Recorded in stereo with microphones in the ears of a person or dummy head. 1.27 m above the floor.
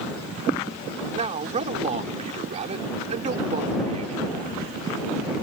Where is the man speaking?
35° right (ahead or behind).